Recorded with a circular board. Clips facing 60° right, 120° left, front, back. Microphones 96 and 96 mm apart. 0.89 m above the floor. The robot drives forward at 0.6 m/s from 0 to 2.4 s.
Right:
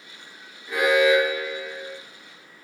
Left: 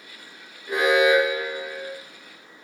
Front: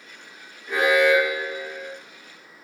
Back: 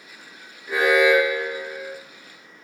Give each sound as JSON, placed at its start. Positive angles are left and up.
{"t": 0.7, "sound": "an alarm", "azimuth_deg": 100, "distance_m": 1.1}